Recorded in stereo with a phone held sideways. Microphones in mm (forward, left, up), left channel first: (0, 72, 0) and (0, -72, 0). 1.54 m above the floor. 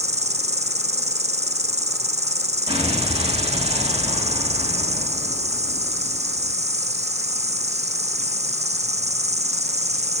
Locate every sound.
0.0 s an insect: 50° right (ahead or behind), 0.8 m
2.7 s an explosion: 40° right (ahead or behind), 3.5 m